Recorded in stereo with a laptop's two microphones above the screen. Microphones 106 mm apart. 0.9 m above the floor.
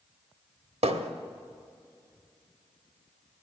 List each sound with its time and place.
0.8 s hammering: 80° right, 1.0 m